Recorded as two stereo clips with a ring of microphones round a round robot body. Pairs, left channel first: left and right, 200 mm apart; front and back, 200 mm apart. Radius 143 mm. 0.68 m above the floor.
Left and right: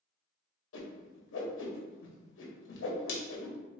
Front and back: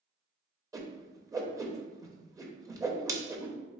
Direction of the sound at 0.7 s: 105° left.